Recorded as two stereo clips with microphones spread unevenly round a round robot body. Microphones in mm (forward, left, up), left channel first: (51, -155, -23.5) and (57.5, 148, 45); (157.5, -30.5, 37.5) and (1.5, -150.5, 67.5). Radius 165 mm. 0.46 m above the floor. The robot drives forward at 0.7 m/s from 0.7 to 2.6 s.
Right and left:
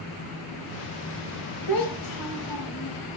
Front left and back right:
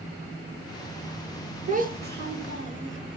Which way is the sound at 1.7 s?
85° right.